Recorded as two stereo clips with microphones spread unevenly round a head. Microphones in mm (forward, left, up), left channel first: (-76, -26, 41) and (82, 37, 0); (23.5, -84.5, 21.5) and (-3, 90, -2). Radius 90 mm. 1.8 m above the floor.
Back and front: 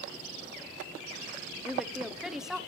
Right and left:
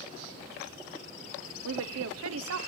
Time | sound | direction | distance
1.6 | a woman speaking | 110° left | 1.2 m